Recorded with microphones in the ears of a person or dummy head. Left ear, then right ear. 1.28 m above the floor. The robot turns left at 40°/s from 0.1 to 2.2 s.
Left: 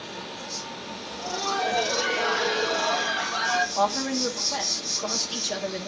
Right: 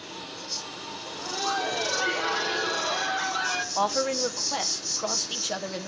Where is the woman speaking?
35° right (ahead or behind), 0.7 m.